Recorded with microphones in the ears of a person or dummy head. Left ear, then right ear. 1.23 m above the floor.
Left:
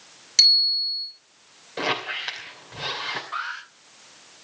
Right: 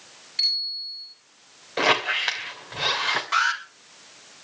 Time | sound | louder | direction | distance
0.4 | a bicycle bell | left 8 dB | 85° left | 9.5 m
1.8 | a squeak | right 5 dB | 15° right (ahead or behind) | 2.5 m
3.3 | an alarm | right 8 dB | 60° right (ahead or behind) | 7 m